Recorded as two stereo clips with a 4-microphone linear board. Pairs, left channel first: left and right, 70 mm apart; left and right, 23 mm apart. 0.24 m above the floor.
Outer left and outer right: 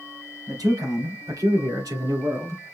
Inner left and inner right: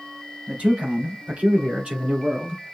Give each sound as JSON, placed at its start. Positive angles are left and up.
{"t": 0.5, "sound": "a man speaking", "side_deg": -70, "distance_m": 3.5}